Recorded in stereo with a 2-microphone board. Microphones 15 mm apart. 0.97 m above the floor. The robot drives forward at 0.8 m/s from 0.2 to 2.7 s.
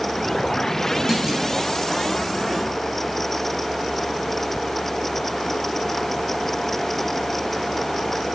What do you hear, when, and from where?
1.1 s a clunk: 15° right (ahead or behind), 7.5 m